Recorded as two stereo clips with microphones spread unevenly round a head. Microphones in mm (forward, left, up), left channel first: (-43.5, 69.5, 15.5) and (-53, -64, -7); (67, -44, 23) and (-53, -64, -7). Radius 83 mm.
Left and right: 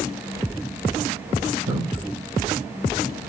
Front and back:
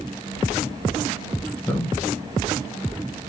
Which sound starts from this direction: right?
A man speaking, at 1.7 s.